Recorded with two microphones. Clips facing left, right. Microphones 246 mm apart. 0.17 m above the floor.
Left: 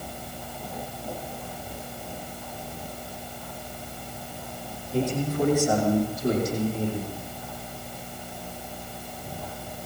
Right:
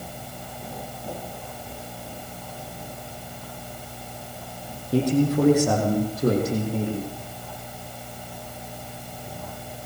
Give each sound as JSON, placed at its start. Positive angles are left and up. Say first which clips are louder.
{"t": 4.9, "sound": "a man speaking", "louder": "right 6 dB", "side_deg": -75, "distance_m": 7.0}